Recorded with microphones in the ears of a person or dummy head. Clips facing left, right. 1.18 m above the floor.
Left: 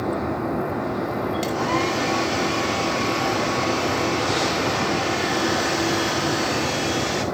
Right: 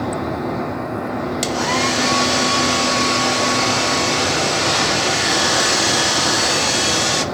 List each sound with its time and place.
1.4 s a hair dryer: 75° right (ahead or behind), 1.3 m